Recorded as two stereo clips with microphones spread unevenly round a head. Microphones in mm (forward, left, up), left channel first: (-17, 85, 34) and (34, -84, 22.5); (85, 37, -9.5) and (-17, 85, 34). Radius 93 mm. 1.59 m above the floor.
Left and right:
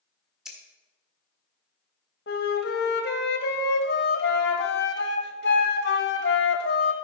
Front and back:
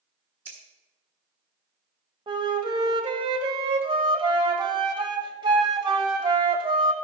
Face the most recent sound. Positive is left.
turn(degrees=130)